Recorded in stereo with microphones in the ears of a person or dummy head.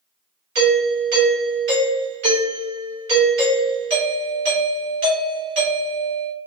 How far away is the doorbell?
About 1.8 m.